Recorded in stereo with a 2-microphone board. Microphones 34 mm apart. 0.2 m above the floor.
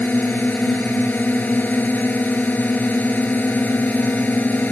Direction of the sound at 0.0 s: 60° left (ahead or behind).